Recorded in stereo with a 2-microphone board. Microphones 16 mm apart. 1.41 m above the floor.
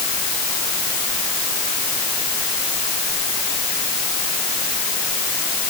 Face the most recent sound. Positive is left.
No sound to turn to.